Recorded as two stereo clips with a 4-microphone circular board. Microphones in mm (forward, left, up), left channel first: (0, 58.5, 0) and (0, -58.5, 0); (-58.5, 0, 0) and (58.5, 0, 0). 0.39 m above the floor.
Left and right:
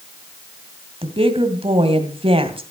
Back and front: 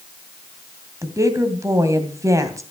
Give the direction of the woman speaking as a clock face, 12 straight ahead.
2 o'clock.